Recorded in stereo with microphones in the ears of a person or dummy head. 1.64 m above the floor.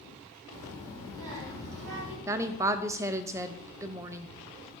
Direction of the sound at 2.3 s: 10° right (ahead or behind).